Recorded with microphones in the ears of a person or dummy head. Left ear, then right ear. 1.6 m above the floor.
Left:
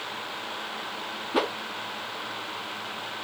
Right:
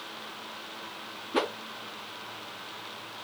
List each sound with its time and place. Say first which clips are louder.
1.3 s a whoosh: left 2 dB; 5° right (ahead or behind)